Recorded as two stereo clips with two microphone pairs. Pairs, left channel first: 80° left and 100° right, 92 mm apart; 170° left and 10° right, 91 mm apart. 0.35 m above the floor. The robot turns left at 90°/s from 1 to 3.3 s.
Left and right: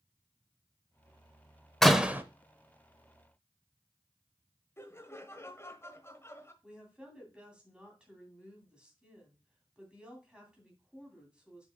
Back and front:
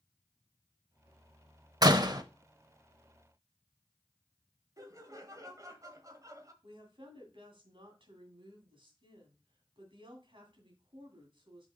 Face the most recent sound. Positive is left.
turn(degrees=-20)